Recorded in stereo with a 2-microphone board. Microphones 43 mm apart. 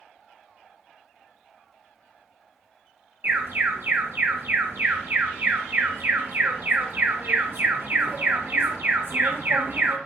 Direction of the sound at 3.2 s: 60° right (ahead or behind).